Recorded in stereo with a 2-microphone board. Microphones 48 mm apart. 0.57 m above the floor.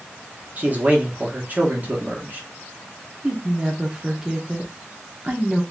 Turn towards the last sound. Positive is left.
turn(degrees=-15)  # may be behind; listen again after turning